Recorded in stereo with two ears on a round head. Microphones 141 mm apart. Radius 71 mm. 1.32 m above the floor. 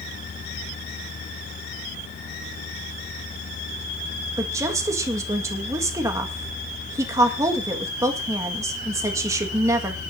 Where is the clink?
I don't hear a clink.